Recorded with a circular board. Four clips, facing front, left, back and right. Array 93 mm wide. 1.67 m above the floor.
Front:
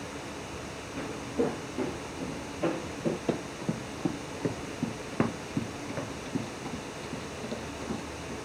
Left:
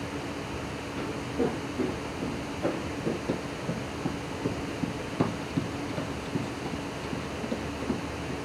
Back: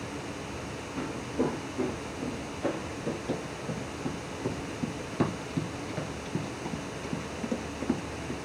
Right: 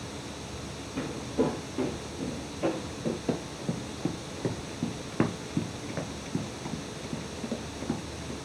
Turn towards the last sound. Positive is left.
turn(degrees=-175)